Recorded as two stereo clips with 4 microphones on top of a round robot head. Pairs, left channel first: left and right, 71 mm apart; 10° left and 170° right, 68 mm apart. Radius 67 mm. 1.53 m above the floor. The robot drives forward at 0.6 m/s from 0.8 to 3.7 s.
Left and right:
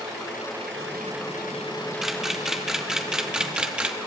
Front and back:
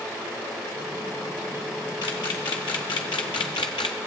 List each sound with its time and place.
2.0 s a camera shutter: 5° right, 1.5 m; by 4.0 s 20° right, 0.6 m